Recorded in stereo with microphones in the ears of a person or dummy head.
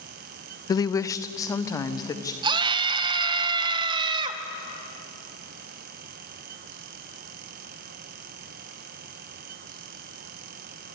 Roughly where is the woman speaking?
Left.